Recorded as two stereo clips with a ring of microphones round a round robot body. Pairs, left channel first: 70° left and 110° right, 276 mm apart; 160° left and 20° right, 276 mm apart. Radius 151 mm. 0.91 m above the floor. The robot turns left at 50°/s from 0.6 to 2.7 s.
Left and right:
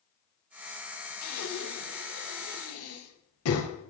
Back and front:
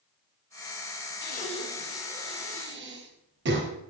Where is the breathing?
105° left, 3.5 m; by 3.7 s 30° left, 3.5 m.